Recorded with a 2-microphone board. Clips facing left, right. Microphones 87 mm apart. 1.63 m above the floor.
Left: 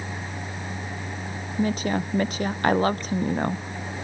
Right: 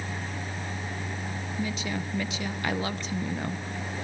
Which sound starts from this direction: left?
A woman speaking, at 1.6 s.